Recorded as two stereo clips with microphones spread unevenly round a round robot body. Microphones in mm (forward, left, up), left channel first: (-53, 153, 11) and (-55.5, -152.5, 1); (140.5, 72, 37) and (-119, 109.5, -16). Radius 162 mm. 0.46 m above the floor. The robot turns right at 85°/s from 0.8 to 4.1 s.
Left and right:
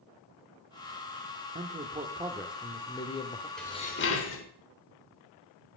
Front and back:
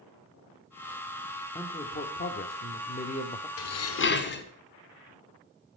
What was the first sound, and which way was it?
A man speaking, 95° right.